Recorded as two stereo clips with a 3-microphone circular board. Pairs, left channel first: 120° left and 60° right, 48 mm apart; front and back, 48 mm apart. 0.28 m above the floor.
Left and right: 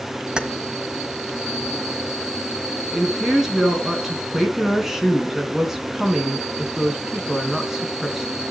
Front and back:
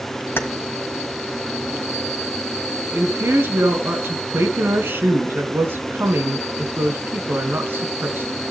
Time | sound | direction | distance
0.4 | keys jangling | 10° left | 1.4 m
2.9 | a woman speaking | 140° right | 3.5 m